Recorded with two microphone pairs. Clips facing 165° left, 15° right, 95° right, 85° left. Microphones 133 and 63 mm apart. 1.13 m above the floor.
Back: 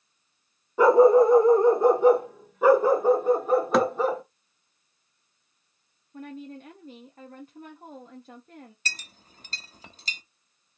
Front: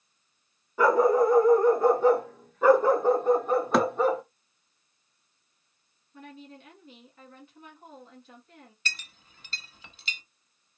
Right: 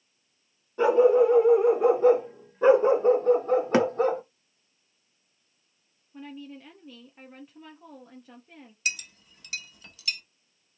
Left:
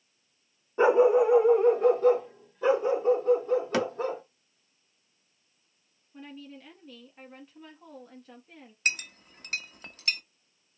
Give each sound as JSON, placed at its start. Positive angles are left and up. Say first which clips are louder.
{"t": 0.8, "sound": "a dog barking", "louder": "back 5 dB, right 1 dB", "azimuth_deg": 125, "distance_m": 0.9}
{"t": 3.7, "sound": "a thud", "louder": "back 1 dB, right 6 dB", "azimuth_deg": -105, "distance_m": 0.6}
{"t": 6.1, "sound": "a woman speaking", "louder": "back 7 dB, right 3 dB", "azimuth_deg": 180, "distance_m": 0.9}
{"t": 8.8, "sound": "a clink", "louder": "even, left 4 dB", "azimuth_deg": 120, "distance_m": 0.6}